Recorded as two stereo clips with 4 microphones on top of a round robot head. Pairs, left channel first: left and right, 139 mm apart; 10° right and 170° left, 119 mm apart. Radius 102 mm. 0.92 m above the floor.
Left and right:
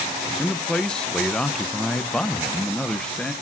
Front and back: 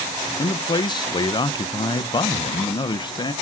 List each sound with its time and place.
0.4 s a man speaking: 10° left, 0.5 m